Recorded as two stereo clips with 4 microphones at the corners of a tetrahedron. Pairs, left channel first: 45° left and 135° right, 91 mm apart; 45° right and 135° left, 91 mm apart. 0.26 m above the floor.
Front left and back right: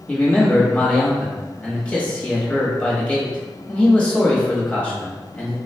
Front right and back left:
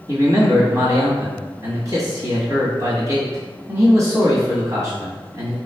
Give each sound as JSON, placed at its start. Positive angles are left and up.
{"t": 0.1, "sound": "a man speaking", "azimuth_deg": 115, "distance_m": 1.3}